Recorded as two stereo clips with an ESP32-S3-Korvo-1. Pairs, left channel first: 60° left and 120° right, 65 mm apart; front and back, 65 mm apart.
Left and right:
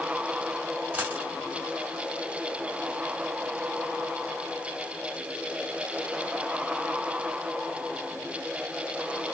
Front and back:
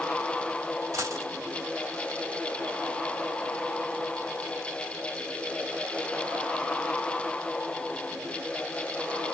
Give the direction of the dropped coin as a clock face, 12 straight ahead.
6 o'clock.